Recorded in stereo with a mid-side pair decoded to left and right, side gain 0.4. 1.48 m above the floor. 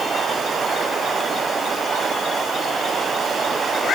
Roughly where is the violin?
I don't hear a violin.